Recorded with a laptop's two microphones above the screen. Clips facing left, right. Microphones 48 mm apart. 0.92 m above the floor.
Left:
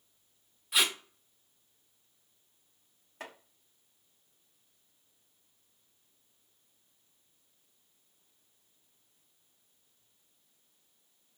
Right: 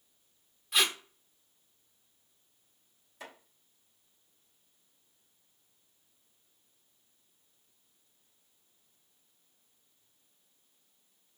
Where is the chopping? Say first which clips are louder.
Left 2 dB; 45° left (ahead or behind), 1.6 m.